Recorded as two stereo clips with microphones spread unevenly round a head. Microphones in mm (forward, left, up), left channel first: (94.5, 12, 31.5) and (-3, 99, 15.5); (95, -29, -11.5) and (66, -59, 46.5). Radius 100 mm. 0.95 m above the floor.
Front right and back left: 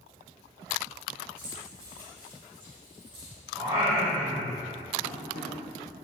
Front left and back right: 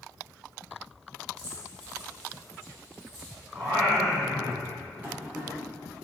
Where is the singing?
145° right, 3.5 m.